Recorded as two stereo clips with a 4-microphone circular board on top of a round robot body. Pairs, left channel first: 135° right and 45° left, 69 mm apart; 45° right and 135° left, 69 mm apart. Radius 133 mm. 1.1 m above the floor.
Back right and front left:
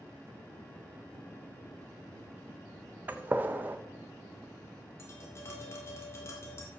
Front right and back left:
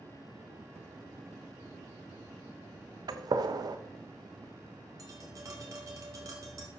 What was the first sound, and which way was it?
A gunshot, 110° left.